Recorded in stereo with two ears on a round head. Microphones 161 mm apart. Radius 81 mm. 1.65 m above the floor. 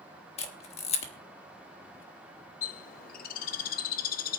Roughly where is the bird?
Left.